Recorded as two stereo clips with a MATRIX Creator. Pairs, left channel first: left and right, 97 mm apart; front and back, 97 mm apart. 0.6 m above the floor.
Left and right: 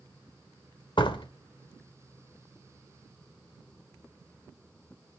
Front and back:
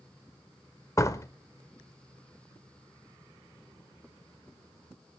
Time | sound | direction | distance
1.0 | a door slam | 55° left | 1.2 m